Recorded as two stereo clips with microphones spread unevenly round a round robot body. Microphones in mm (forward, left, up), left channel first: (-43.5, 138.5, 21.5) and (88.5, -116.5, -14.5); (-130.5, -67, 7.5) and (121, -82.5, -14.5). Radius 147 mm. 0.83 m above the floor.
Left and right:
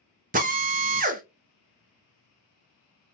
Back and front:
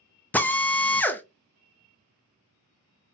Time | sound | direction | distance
0.3 | a drill | 95° right | 0.6 m